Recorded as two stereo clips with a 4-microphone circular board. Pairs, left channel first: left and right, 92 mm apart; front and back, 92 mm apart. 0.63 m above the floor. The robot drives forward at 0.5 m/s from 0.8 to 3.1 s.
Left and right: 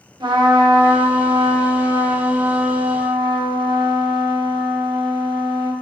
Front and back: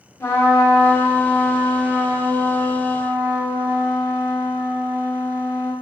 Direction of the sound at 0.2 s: 60° right.